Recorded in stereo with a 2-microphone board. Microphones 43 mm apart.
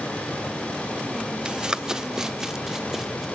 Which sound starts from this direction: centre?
Running footsteps, at 1.4 s.